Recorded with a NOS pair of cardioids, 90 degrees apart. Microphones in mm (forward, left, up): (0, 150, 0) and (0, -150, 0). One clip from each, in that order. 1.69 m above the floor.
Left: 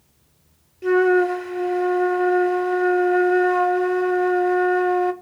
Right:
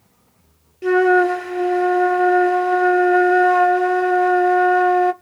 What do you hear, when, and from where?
0.8 s a flute: 20° right, 0.6 m